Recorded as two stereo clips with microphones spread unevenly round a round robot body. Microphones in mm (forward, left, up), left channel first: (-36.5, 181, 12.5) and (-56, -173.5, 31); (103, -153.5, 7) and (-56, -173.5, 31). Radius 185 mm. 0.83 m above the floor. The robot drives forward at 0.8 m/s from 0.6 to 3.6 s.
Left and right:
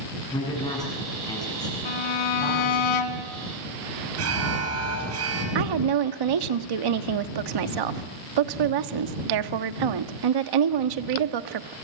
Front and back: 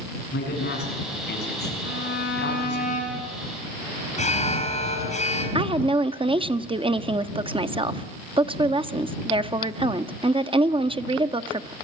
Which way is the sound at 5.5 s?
110° right.